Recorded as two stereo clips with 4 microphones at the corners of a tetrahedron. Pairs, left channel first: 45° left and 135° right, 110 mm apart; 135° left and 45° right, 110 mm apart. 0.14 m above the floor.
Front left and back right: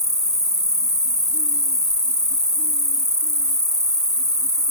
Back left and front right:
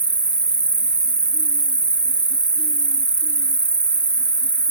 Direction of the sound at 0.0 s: 110° right.